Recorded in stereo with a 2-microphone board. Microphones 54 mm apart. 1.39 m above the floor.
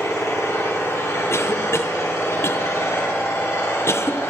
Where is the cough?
55° left (ahead or behind), 1.0 m.